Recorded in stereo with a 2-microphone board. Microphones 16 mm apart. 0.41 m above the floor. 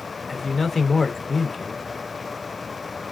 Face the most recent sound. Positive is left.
turn(degrees=20)  # may be behind; listen again after turning